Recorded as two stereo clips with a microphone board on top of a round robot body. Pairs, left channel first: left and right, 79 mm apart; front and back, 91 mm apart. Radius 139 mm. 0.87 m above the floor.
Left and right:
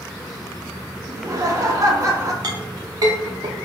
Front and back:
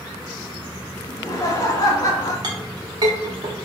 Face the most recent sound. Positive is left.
turn(degrees=-130)